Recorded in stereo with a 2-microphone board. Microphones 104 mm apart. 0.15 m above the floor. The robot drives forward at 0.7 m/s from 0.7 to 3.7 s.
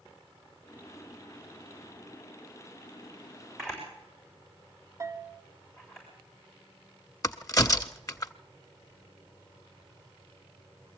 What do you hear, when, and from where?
3.6 s a camera shutter: 5° left (ahead or behind), 7.5 m
5.0 s a bell: 30° right (ahead or behind), 0.7 m
7.2 s a crack: 35° left (ahead or behind), 0.5 m